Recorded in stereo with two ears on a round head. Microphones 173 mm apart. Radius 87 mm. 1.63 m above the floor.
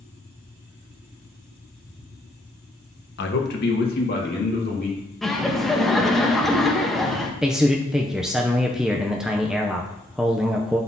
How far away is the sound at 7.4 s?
About 0.6 m.